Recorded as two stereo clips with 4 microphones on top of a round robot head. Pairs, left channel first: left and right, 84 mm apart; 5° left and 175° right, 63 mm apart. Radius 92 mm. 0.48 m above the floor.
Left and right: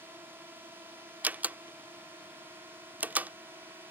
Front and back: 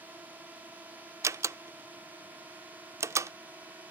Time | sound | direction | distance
0.0 | a drone | 135° right | ?
1.2 | a door slam | 155° right | ?